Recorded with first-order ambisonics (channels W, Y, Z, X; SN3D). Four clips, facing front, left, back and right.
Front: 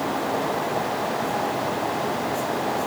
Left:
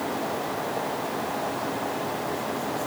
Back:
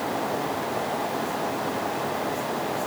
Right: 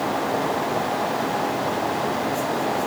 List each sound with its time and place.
Only background noise.